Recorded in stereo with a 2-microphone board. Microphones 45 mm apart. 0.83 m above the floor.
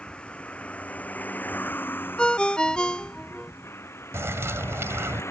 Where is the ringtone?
20° left (ahead or behind).